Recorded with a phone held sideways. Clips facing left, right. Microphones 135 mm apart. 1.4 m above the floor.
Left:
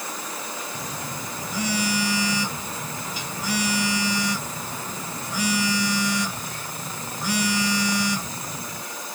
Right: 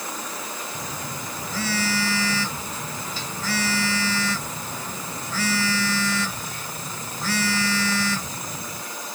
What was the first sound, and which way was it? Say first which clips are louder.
A phone buzzing: even; 15° left (ahead or behind).